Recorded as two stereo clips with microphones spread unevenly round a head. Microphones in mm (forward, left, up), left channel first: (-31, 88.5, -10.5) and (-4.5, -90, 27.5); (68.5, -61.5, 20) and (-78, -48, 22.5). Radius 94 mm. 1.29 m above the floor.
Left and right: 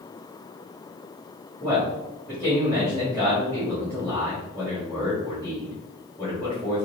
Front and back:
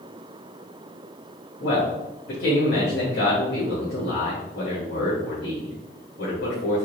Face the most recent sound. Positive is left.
turn(degrees=15)